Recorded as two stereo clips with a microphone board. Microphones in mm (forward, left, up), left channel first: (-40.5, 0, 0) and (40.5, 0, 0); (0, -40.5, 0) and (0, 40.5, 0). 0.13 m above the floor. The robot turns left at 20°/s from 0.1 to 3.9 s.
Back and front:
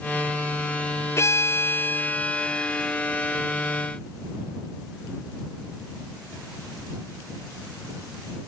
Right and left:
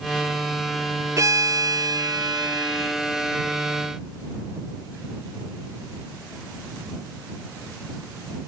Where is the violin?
135° left; by 3.0 s 95° left.